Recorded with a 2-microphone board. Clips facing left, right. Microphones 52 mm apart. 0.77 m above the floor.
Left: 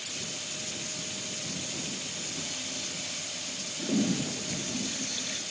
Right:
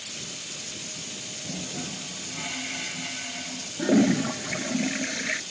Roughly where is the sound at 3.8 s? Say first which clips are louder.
Right 8 dB; right.